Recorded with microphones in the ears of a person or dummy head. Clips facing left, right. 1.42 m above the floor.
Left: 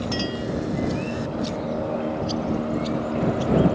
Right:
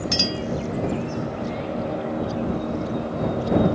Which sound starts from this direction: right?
A clink, at 0.1 s.